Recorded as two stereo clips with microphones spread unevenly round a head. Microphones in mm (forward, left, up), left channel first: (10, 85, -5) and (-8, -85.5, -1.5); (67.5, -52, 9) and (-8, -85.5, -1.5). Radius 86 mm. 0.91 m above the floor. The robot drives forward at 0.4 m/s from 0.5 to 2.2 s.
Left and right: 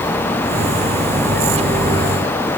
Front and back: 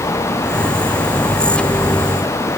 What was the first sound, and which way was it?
Only background noise.